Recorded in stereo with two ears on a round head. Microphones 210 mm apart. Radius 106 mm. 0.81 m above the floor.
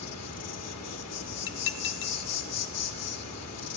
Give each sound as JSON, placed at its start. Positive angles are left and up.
{"t": 0.0, "sound": "an insect", "side_deg": 75, "distance_m": 1.1}
{"t": 1.5, "sound": "dishes clattering", "side_deg": 55, "distance_m": 0.8}